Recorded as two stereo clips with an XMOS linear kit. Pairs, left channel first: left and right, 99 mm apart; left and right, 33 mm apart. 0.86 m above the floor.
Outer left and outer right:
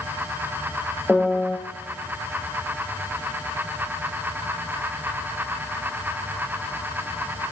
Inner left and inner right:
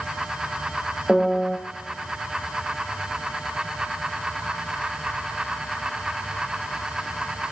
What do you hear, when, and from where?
1.1 s a piano: 10° left (ahead or behind), 1.3 m